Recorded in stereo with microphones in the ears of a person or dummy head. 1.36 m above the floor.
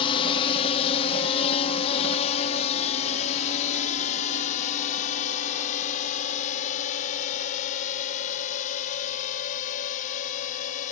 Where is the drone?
25° left (ahead or behind); by 10.9 s 40° left (ahead or behind).